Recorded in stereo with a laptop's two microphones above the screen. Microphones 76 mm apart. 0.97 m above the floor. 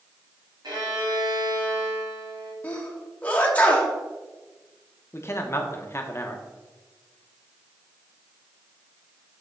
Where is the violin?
65° right (ahead or behind), 2.5 m.